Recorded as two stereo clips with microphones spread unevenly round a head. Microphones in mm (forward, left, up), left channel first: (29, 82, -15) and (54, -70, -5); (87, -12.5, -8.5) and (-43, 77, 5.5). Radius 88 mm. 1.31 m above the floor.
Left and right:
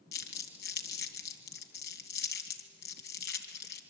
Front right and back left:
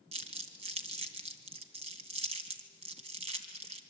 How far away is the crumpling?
About 2.5 m.